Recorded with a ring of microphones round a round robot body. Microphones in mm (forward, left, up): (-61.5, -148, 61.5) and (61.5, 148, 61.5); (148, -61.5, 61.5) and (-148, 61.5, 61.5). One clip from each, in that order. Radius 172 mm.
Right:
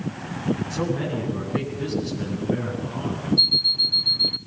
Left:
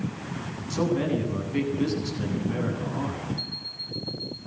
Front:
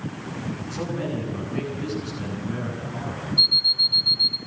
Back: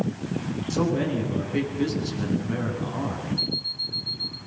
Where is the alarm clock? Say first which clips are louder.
Right 16 dB, front 11 dB; 95° right, 1.2 m.